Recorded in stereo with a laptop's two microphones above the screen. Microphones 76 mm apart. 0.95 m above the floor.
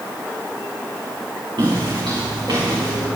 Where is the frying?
I don't hear frying.